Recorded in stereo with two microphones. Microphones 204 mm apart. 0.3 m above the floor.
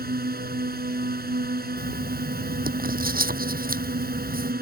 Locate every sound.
0.0 s a drone: 50° right (ahead or behind)
1.8 s writing: 45° right (ahead or behind)